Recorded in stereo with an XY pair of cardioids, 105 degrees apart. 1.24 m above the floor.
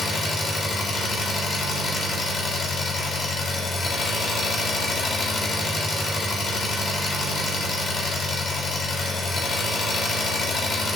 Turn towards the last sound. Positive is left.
turn(degrees=55)